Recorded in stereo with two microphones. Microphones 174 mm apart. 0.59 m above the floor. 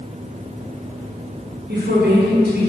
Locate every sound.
1.7 s a woman speaking: 75° right (ahead or behind), 5.5 m; by 2.7 s 70° right (ahead or behind), 6 m